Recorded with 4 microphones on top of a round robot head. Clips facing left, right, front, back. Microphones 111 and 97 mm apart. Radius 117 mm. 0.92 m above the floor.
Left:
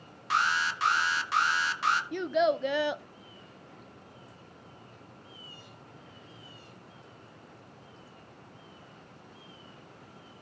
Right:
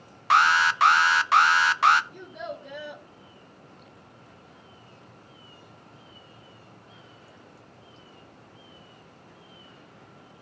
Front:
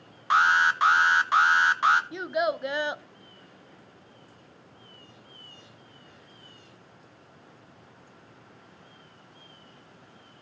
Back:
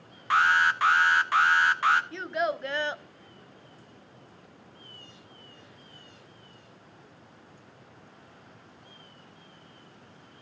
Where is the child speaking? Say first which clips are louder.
Left 12 dB, front 2 dB; 75° left, 0.8 m.